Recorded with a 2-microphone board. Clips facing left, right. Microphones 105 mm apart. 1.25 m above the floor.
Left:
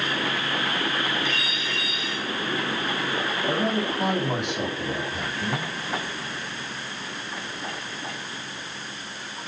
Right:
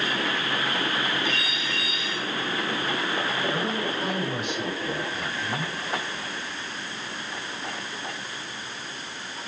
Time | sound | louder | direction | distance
3.5 | a man speaking | left 3 dB | 75° left (ahead or behind) | 9.5 m